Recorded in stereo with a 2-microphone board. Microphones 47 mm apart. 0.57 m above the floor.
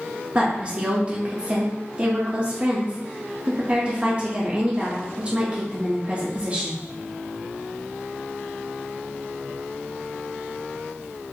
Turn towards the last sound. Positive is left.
turn(degrees=-25)  # may be behind; listen again after turning